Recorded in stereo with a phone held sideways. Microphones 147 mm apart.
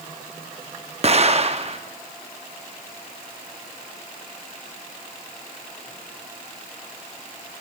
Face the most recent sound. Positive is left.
turn(degrees=-45)  # may be behind; listen again after turning